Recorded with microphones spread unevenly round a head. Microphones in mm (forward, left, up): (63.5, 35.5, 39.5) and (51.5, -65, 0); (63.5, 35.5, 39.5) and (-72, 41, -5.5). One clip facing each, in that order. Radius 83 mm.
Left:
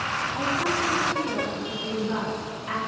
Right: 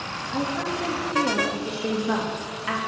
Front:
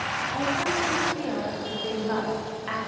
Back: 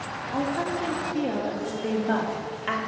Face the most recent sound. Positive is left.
turn(degrees=-135)